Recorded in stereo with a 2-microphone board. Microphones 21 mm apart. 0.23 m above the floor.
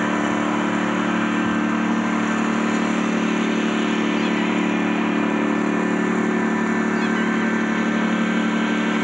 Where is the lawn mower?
15° right (ahead or behind).